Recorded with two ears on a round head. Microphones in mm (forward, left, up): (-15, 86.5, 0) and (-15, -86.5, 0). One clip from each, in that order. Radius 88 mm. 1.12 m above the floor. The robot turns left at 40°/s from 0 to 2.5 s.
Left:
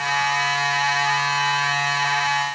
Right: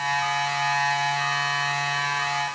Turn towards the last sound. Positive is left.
No sound to turn to.